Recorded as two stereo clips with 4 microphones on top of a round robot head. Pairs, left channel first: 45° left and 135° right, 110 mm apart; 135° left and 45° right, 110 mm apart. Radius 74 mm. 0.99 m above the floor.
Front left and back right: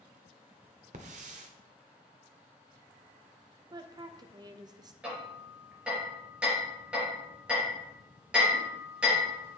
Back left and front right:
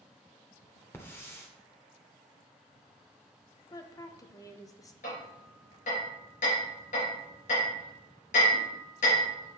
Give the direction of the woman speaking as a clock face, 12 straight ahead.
6 o'clock.